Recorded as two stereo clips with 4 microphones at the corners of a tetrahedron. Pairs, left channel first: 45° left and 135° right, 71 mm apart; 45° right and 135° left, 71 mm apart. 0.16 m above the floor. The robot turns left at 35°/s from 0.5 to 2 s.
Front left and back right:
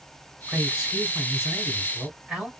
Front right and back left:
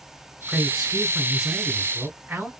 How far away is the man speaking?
About 1.1 m.